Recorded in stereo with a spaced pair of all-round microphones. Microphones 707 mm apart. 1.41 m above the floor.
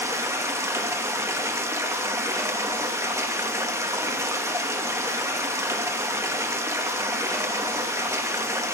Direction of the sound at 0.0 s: 5° right (ahead or behind).